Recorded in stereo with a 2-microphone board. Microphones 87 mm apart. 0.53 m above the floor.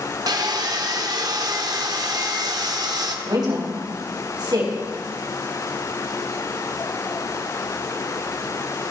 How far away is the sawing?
About 0.9 m.